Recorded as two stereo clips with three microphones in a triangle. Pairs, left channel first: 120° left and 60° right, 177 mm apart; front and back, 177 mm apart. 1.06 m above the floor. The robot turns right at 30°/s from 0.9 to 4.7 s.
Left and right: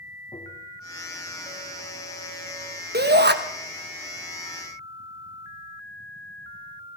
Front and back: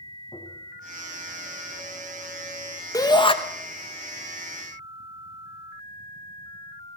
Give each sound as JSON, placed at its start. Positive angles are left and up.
{"t": 0.3, "sound": "tapping", "azimuth_deg": 65, "distance_m": 2.5}
{"t": 2.9, "sound": "a shout", "azimuth_deg": -70, "distance_m": 1.1}